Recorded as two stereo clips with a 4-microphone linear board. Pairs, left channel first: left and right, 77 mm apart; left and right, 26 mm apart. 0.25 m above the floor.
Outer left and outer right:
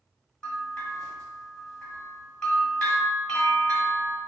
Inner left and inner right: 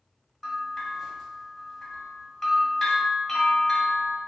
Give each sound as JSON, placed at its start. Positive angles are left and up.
{"t": 0.4, "sound": "a bell", "side_deg": 15, "distance_m": 1.2}